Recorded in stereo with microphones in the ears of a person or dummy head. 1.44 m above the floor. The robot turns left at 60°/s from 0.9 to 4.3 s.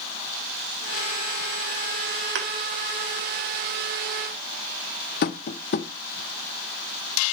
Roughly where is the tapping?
Left.